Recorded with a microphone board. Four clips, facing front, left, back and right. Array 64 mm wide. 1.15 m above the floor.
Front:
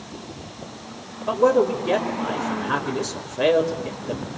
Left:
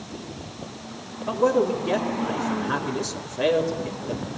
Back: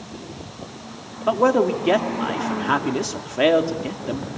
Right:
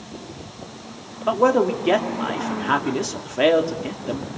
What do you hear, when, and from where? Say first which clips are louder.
1.3 s a man speaking: right 3 dB, even; 135° right, 3 m